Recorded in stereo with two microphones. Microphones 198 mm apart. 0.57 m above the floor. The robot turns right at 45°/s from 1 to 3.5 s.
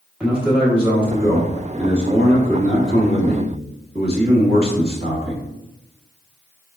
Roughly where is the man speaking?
Behind.